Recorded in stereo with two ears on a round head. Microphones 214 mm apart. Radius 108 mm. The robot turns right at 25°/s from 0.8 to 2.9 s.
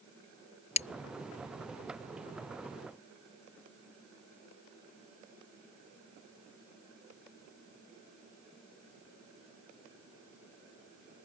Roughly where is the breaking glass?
Left.